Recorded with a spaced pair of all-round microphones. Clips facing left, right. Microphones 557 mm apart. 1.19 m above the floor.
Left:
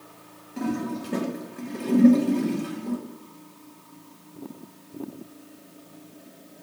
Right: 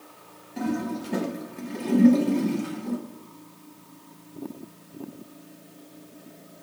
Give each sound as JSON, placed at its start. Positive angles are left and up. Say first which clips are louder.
{"t": 0.6, "sound": "a toilet flushing", "louder": "even", "side_deg": -10, "distance_m": 0.5}